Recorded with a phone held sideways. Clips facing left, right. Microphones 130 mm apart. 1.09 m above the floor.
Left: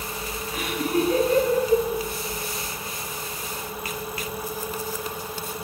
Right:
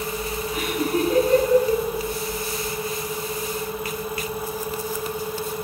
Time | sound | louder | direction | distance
0.5 | laughter | even | 25° right (ahead or behind) | 9 m